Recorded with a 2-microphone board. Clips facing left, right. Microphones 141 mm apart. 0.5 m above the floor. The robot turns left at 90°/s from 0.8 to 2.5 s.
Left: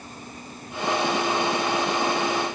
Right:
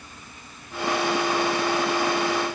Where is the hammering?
I don't hear hammering.